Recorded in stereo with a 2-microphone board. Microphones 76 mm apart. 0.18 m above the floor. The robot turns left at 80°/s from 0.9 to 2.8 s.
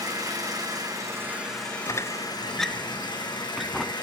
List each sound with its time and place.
0.0 s an engine running: 125° right, 7.5 m; by 4.0 s 85° left, 7.5 m
1.9 s a squeak: 45° left (ahead or behind), 1.2 m; by 3.9 s 5° right (ahead or behind), 1.2 m